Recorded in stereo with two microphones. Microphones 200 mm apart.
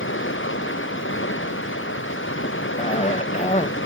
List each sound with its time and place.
0.0 s running water: 80° left
2.8 s a cough: 35° left (ahead or behind)